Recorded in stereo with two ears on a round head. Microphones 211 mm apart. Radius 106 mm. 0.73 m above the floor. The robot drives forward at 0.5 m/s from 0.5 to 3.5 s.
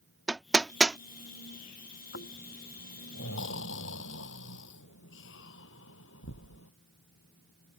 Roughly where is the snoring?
Left.